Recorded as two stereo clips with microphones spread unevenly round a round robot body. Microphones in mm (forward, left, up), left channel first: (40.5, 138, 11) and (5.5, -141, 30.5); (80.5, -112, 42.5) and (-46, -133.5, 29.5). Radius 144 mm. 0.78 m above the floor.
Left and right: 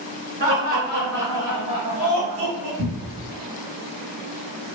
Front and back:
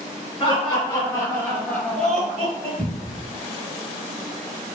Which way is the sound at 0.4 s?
15° right.